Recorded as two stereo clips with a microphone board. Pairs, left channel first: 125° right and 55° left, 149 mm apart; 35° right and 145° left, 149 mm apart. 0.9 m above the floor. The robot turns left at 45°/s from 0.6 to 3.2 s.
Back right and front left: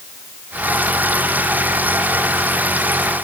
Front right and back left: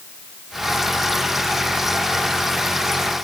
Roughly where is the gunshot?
I don't hear a gunshot.